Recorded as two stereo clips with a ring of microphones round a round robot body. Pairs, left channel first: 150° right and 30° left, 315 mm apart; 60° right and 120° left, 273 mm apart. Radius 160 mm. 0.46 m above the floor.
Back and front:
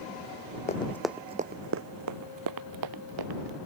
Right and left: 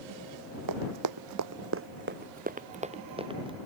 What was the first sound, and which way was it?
Running footsteps, 140° left.